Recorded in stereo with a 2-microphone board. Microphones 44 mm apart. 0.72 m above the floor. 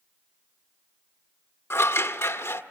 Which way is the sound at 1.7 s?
70° left (ahead or behind).